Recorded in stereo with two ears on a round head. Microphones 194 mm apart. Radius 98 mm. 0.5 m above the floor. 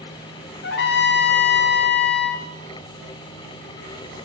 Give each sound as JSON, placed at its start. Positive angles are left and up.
{"t": 0.6, "sound": "a trumpet", "side_deg": 60, "distance_m": 3.0}